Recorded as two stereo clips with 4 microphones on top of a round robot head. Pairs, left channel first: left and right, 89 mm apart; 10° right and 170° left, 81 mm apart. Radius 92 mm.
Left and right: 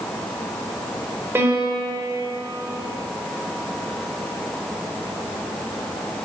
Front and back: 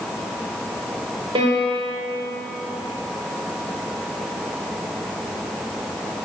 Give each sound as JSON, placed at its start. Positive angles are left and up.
{"t": 1.4, "sound": "a piano", "azimuth_deg": -155, "distance_m": 3.0}